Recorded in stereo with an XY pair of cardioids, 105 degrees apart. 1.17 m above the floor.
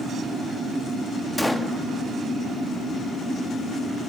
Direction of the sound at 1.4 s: 10° left.